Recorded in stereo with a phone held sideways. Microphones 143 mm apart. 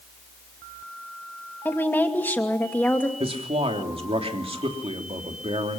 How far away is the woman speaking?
About 2.5 m.